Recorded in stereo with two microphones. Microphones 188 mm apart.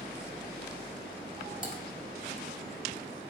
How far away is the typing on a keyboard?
About 1.5 m.